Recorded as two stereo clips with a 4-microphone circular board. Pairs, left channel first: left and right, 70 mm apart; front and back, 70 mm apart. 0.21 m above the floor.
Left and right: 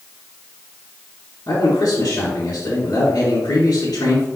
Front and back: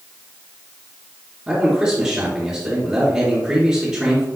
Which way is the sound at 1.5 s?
115° left.